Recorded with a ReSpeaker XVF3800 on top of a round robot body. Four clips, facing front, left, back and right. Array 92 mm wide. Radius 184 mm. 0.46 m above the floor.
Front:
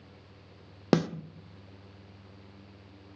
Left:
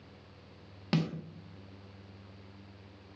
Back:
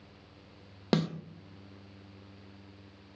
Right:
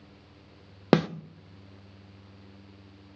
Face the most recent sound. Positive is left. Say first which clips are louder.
# right 10 dB, front 4 dB
turn(degrees=-75)